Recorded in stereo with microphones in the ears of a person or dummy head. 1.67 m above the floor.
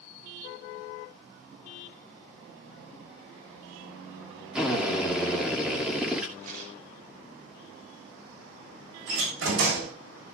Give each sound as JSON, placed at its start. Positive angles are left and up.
{"t": 4.5, "sound": "a drill", "side_deg": -5, "distance_m": 2.5}
{"t": 6.4, "sound": "a rattle", "side_deg": -55, "distance_m": 5.0}
{"t": 9.1, "sound": "a door slam", "side_deg": -75, "distance_m": 7.0}